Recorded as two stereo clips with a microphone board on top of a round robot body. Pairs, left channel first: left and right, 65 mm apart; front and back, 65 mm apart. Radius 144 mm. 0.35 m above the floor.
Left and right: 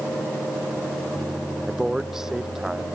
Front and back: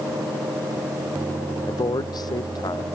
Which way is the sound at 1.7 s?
5° right.